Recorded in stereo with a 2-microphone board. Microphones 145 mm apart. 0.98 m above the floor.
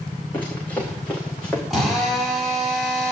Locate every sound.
0.3 s running footsteps: 15° left (ahead or behind), 4 m; by 1.6 s 5° left (ahead or behind), 4 m
1.7 s a drill: centre (ahead or behind), 6 m